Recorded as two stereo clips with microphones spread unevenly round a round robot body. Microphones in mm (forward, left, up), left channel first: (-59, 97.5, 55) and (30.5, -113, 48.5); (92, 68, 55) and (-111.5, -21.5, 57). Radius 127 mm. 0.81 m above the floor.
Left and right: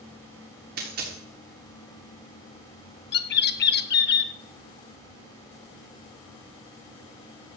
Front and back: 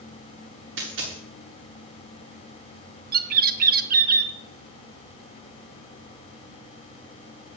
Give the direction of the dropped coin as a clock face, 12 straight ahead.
4 o'clock.